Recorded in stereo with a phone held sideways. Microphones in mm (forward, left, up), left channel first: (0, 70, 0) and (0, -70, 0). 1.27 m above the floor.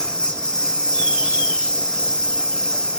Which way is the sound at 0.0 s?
5° left (ahead or behind).